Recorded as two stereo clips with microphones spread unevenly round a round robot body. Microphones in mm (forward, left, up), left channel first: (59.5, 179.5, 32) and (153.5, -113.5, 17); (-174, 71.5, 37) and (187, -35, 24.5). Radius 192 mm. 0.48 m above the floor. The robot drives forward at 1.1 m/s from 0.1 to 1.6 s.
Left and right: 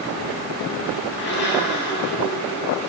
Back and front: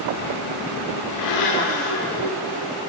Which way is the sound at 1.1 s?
150° left.